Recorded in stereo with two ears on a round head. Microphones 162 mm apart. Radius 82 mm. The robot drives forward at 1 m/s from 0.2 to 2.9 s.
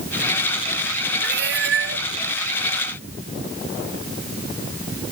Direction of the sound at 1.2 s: 55° right (ahead or behind).